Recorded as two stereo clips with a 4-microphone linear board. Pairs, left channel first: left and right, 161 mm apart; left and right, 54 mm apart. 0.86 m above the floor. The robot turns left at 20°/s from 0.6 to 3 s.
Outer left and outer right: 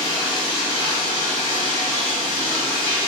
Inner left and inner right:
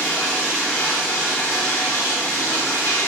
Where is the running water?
150° left, 1.4 m; by 3.1 s 100° left, 1.4 m.